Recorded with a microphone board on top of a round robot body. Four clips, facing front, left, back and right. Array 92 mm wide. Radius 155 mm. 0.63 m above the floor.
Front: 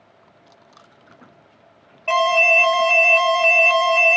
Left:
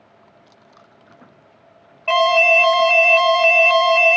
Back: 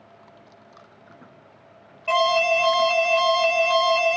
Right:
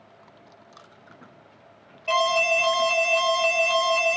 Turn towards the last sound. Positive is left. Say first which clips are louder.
# left 7 dB, front 3 dB
turn(degrees=65)